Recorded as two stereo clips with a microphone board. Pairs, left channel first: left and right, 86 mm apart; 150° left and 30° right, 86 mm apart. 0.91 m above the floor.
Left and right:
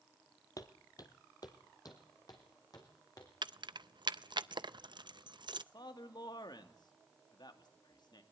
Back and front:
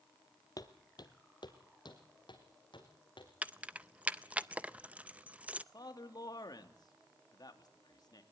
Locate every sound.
0.6 s footsteps: 125° left, 1.4 m; by 3.3 s 130° left, 4.5 m
3.4 s keys jangling: 100° right, 0.5 m
5.7 s a man speaking: 115° left, 2 m